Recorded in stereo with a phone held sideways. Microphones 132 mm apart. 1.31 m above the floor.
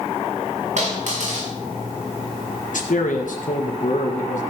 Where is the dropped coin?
65° right (ahead or behind), 5.5 m.